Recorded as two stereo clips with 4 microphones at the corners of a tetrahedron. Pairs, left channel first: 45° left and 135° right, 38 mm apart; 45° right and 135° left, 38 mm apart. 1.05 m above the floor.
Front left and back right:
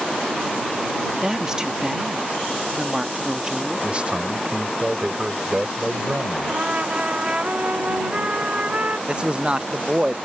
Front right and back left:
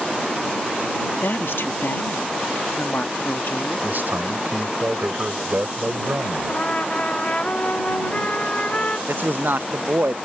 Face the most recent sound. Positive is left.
turn(degrees=160)